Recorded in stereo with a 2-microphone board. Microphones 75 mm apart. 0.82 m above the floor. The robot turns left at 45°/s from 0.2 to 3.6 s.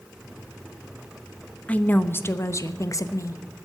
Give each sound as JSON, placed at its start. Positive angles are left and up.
{"t": 1.7, "sound": "a woman speaking", "azimuth_deg": 160, "distance_m": 0.9}